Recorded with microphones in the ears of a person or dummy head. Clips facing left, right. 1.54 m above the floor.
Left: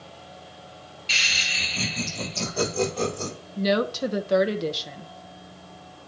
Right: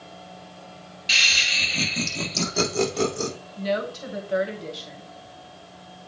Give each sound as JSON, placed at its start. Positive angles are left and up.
{"t": 1.1, "sound": "laughter", "side_deg": -20, "distance_m": 2.5}
{"t": 3.6, "sound": "a woman speaking", "side_deg": 55, "distance_m": 0.9}